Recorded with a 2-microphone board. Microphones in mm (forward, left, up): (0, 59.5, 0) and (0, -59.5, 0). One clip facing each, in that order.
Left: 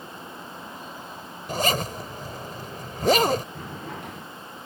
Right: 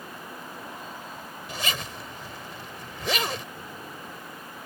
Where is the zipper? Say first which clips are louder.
Left 9 dB; 45° left (ahead or behind).